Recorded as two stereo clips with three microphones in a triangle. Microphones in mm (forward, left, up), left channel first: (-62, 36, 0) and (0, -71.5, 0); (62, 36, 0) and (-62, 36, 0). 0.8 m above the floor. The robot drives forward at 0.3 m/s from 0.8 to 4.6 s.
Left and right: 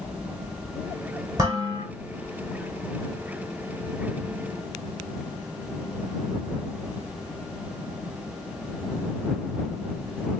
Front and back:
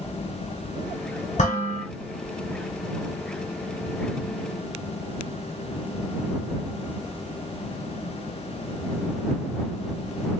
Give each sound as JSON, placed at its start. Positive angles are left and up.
{"t": 1.4, "sound": "dishes clattering", "azimuth_deg": 0, "distance_m": 2.0}